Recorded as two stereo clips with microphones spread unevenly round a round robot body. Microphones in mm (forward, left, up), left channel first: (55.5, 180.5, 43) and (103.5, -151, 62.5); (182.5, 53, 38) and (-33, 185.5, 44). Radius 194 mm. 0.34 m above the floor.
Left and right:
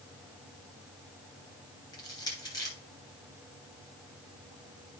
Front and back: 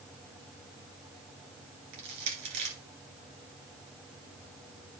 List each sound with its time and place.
1.9 s crushing: straight behind, 1.9 m